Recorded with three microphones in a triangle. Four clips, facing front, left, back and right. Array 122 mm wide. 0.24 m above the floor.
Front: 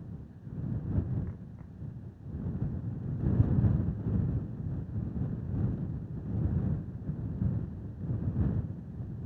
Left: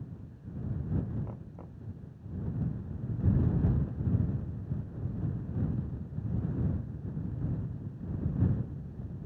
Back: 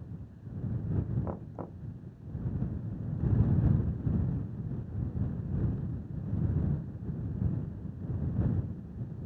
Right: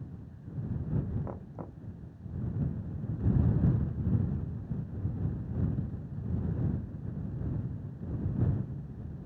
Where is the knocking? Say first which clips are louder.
Right 4 dB, back 7 dB; 155° right.